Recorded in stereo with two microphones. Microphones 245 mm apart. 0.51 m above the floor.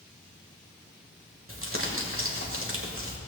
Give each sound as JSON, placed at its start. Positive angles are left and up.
{"t": 1.5, "sound": "crumpling", "side_deg": -60, "distance_m": 1.6}